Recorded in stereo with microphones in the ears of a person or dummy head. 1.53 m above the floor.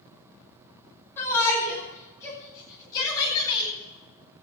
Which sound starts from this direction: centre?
A shout, at 1.2 s.